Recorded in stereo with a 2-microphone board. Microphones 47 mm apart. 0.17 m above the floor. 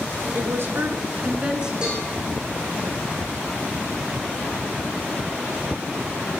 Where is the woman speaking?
55° right (ahead or behind), 2.5 m; by 1.7 s 15° right (ahead or behind), 2.5 m.